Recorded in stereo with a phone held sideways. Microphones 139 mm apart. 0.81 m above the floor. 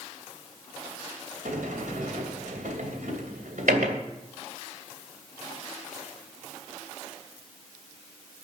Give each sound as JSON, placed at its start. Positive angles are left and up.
{"t": 1.4, "sound": "a sliding door", "side_deg": -80, "distance_m": 2.5}